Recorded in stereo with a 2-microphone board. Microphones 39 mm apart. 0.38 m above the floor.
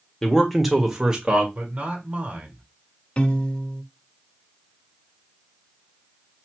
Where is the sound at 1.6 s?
45° right (ahead or behind), 1.7 m.